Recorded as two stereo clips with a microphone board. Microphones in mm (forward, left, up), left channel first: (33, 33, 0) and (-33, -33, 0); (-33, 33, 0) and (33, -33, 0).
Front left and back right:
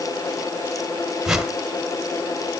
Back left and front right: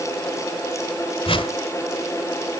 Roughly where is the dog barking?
I don't hear a dog barking.